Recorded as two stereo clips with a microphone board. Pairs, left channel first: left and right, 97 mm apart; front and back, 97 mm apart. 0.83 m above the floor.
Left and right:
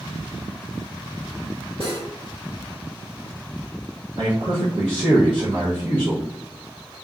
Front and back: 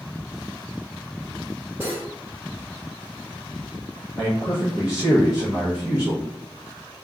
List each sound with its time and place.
1.8 s cutlery clinking: 110° right, 1.5 m
4.2 s a man speaking: 100° right, 0.8 m